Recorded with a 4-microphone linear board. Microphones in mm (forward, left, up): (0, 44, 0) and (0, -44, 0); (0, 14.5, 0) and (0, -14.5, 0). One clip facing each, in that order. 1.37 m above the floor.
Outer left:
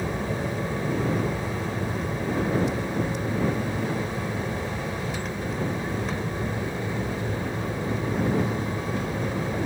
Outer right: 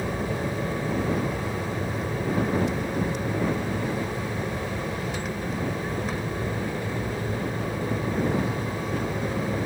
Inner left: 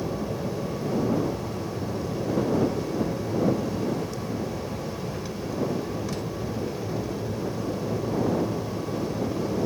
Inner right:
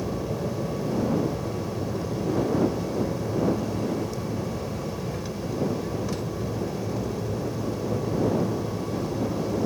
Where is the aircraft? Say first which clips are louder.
Even, even; 5° right (ahead or behind).